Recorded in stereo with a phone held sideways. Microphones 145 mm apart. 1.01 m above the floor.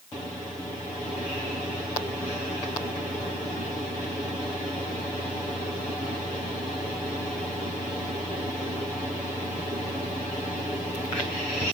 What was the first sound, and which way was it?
Only background noise.